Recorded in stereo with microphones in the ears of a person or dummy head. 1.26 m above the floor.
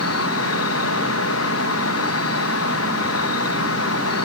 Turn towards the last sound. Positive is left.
turn(degrees=70)  # may be behind; listen again after turning